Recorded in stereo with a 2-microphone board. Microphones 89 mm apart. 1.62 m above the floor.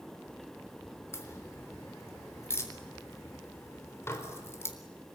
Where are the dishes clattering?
30° left (ahead or behind), 4 m.